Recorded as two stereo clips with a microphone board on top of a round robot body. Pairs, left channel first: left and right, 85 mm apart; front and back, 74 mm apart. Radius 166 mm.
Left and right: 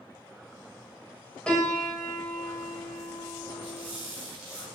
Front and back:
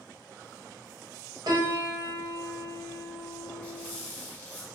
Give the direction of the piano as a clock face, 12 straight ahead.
6 o'clock.